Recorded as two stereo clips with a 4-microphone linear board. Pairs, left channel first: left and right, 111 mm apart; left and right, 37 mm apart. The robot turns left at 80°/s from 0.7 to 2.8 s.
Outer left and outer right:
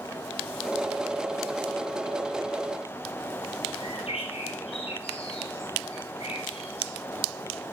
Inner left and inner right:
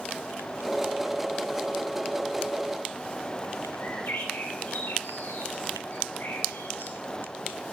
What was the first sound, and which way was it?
A bird, 65° left (ahead or behind).